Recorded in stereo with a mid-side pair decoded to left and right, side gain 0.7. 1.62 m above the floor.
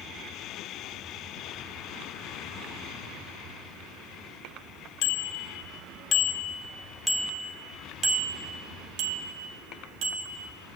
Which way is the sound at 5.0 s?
65° left.